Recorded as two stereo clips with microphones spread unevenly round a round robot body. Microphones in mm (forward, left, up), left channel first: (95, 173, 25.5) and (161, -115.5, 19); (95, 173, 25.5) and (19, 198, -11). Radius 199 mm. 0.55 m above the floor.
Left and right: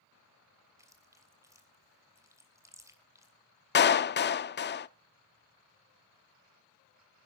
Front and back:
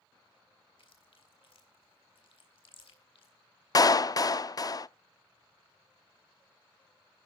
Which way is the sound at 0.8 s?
5° left.